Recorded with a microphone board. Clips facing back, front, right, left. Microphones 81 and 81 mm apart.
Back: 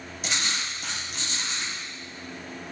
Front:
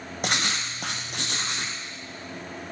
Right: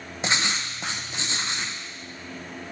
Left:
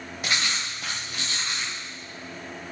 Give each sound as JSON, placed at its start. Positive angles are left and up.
{"t": 0.2, "sound": "writing", "azimuth_deg": -25, "distance_m": 0.8}